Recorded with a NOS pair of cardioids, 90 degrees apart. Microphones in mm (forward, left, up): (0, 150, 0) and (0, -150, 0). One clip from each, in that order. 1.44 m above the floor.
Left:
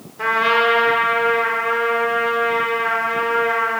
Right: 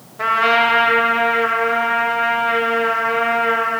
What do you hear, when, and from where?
0.2 s a trumpet: 20° right, 1.5 m